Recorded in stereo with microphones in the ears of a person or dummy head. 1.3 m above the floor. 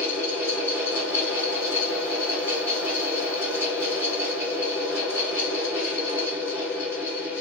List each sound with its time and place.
0.0 s a fan: 20° left (ahead or behind), 1.5 m